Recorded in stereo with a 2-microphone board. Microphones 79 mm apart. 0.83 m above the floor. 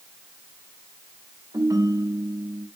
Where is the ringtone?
45° right (ahead or behind), 2.5 m.